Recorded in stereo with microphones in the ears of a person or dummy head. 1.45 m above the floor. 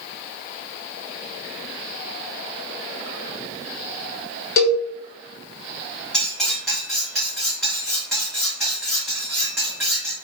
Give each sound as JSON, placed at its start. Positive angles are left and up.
{"t": 4.6, "sound": "a cowbell", "side_deg": 60, "distance_m": 1.1}
{"t": 6.1, "sound": "cutlery clinking", "side_deg": 10, "distance_m": 2.0}